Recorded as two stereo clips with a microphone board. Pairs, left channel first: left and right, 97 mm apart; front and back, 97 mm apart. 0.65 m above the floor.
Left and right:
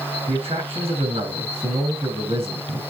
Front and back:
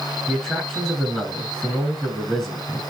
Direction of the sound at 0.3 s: 85° right.